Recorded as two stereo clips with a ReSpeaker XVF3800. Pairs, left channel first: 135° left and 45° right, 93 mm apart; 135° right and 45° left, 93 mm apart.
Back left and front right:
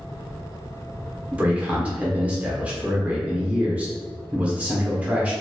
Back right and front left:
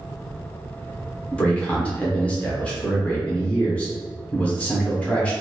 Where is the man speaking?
90° right, 0.7 m.